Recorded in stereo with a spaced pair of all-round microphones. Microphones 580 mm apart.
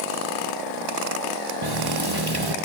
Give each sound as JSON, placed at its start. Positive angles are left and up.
{"t": 1.6, "sound": "a running tap", "side_deg": -40, "distance_m": 1.1}